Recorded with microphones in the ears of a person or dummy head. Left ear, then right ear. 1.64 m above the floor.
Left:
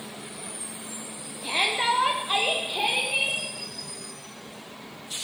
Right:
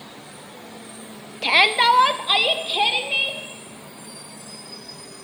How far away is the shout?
About 0.6 m.